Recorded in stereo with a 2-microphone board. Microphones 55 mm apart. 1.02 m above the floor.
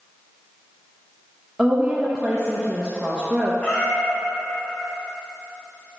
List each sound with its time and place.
1.6 s a woman speaking: 10° right (ahead or behind), 0.8 m
3.6 s a cat meowing: 25° left (ahead or behind), 2 m